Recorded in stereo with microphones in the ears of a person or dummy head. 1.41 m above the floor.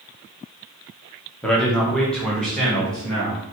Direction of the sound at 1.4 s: 5° left (ahead or behind).